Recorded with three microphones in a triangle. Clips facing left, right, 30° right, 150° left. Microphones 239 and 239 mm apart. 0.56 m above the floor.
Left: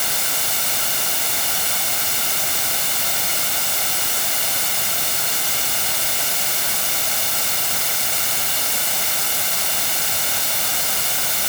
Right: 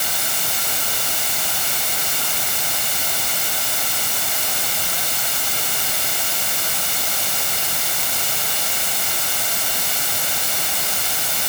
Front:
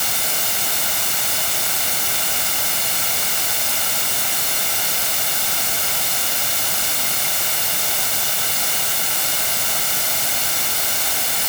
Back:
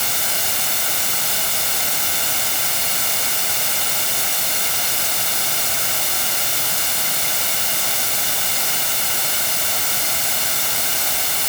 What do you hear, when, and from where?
Only background noise.